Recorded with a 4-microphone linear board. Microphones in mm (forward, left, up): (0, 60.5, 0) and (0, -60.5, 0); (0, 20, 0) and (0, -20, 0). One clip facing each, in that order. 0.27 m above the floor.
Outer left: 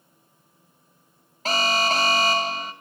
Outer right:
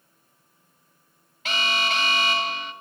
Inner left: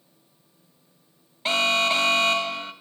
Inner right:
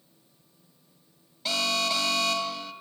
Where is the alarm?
35° left (ahead or behind), 2 m.